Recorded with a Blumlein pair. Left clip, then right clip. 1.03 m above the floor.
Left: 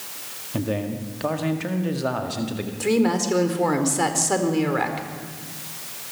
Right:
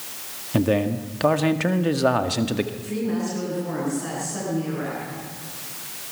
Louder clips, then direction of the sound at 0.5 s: Right 6 dB; 20° right.